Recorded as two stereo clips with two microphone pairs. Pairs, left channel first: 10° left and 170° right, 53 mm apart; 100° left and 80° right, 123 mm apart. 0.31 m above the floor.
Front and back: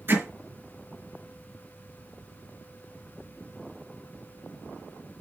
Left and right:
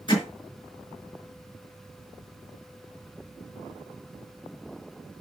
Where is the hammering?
150° left, 4.5 m.